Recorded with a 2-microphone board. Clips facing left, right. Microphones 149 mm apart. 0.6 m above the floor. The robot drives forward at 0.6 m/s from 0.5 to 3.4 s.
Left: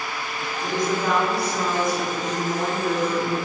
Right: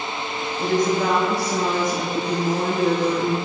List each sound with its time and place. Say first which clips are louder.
0.6 s a woman speaking: right 4 dB; 75° right (ahead or behind), 3 m; by 3.4 s 60° right (ahead or behind), 3 m